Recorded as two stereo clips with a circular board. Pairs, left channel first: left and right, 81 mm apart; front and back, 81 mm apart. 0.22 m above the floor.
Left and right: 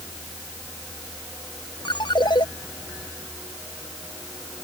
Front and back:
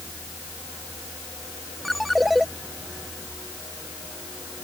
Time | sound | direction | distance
1.9 | a ringtone | 90° left | ?